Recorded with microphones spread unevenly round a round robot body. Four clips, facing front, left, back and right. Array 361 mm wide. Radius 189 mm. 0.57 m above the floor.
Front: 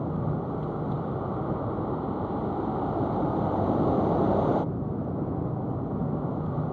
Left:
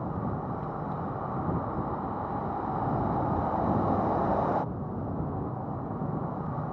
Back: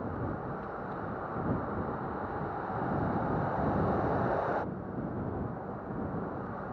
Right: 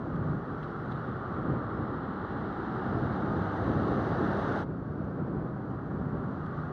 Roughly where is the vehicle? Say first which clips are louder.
Left 1 dB, front 6 dB; ahead.